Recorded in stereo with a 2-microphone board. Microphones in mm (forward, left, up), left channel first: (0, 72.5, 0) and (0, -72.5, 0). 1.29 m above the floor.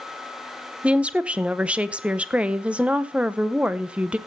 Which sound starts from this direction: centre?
A woman speaking, at 0.8 s.